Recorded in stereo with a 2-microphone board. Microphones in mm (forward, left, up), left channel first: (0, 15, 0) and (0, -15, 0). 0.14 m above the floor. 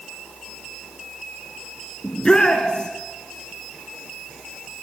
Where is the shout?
30° left (ahead or behind), 2 m.